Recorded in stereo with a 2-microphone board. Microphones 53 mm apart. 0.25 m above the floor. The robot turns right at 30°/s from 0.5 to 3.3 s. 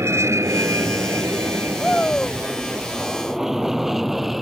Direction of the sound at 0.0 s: 65° right (ahead or behind).